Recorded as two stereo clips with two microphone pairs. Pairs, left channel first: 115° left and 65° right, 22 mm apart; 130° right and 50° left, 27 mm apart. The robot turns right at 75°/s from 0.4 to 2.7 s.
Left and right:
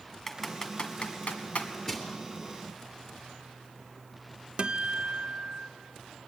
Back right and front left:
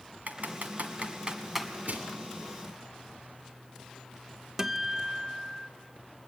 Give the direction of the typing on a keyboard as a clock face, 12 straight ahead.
11 o'clock.